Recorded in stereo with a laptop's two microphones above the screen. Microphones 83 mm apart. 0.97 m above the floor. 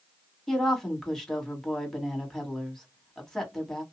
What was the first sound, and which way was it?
A woman speaking, 5° left (ahead or behind).